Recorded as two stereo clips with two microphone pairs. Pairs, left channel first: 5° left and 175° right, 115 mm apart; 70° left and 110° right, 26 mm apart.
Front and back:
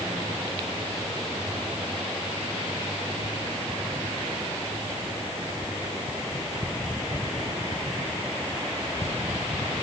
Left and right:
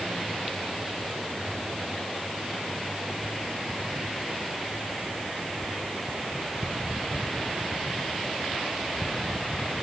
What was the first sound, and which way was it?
Only background noise.